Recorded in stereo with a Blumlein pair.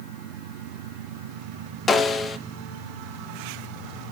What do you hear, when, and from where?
1.9 s a snare drum: 15° left, 0.9 m